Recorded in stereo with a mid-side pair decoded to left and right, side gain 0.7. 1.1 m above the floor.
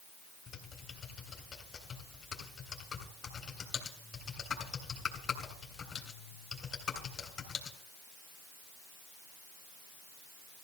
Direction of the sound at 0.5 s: 35° left.